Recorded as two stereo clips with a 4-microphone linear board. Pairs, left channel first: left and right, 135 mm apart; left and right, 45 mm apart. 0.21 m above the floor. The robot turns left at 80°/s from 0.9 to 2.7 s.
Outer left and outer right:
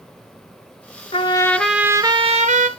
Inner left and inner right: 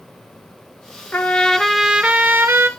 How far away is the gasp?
No gasp in this recording.